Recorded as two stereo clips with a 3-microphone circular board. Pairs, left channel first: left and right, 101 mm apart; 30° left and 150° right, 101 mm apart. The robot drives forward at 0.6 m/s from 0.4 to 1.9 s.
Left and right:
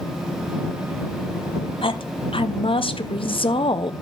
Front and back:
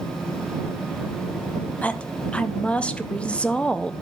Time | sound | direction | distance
1.8 | a woman speaking | 100° left | 0.6 m